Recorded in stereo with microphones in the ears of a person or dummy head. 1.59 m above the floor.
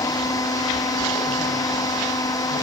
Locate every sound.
0.0 s a machine running: 15° left (ahead or behind)